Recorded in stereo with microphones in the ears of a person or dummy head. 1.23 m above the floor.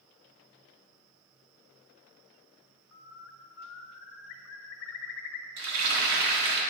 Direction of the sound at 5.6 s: 70° right (ahead or behind).